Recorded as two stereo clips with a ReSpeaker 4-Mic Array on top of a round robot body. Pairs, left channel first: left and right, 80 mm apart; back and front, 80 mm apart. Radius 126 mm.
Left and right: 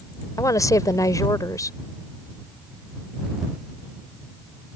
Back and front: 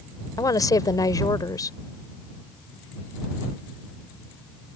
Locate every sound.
0.4 s a woman speaking: 140° left